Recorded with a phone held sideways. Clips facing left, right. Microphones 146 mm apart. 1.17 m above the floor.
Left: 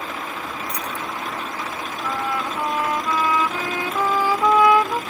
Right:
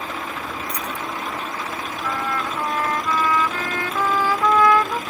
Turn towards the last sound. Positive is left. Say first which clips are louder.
# left 1 dB
turn(degrees=15)  # may be behind; listen again after turning